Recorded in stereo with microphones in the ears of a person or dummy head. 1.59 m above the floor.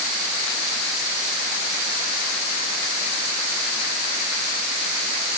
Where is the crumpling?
No crumpling in this recording.